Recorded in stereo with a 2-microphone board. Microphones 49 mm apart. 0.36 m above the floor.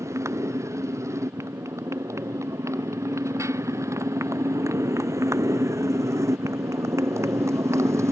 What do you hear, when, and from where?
0.0 s a motorcycle: 85° right; by 8.1 s 75° right (ahead or behind)